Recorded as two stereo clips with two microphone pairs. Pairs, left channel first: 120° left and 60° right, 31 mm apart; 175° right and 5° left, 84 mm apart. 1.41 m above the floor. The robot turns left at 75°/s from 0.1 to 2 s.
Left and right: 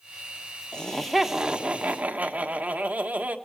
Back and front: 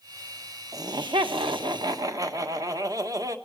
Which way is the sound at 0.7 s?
55° left.